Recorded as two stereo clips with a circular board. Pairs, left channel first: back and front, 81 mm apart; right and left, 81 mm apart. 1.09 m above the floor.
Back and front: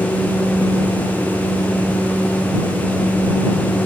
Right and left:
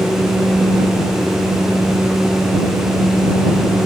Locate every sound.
Only background noise.